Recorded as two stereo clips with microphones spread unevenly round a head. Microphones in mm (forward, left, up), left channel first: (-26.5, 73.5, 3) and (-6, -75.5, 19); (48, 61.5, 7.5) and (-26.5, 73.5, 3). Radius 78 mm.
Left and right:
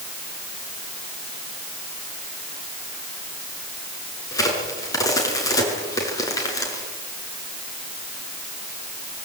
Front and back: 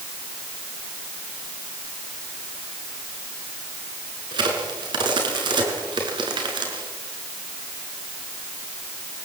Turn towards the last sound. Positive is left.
turn(degrees=165)